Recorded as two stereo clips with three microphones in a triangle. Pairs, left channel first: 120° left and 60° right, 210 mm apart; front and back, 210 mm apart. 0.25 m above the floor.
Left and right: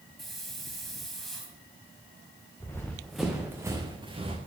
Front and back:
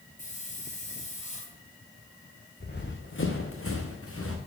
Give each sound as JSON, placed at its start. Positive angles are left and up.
{"t": 0.2, "sound": "a hiss", "azimuth_deg": 35, "distance_m": 1.9}
{"t": 2.6, "sound": "running footsteps", "azimuth_deg": 45, "distance_m": 1.6}